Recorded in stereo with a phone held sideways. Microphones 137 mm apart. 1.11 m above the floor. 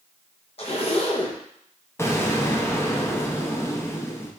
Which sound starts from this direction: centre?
An explosion, at 2.0 s.